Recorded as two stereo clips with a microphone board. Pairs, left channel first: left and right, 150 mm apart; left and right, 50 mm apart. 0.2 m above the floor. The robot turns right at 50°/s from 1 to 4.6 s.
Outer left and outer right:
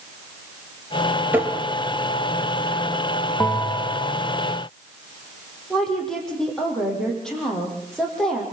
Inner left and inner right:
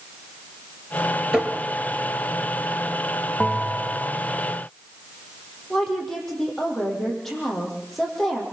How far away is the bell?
About 0.9 m.